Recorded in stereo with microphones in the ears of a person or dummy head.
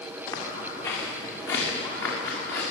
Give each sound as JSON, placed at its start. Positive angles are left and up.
{"t": 0.3, "sound": "footsteps", "side_deg": 20, "distance_m": 7.0}